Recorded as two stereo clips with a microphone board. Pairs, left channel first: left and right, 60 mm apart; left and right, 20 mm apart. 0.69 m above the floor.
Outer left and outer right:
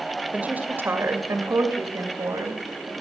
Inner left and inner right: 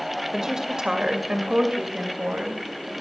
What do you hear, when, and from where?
0.3 s a woman speaking: 20° right (ahead or behind), 2 m; by 2.9 s 70° right (ahead or behind), 3.5 m